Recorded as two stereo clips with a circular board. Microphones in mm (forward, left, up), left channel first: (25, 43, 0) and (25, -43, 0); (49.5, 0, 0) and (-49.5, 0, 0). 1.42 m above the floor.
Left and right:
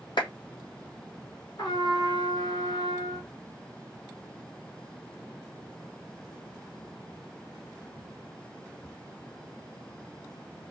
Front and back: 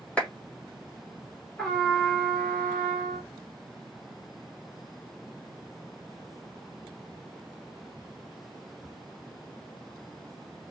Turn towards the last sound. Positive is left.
turn(degrees=80)